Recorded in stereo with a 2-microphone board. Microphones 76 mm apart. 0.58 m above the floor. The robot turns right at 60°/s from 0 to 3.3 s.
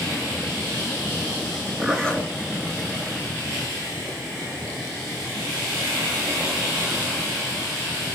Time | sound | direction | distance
1.8 | a zipper | 5° right | 8 m